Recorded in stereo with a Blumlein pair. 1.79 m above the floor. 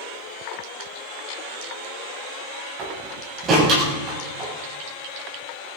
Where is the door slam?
25° right, 7.5 m.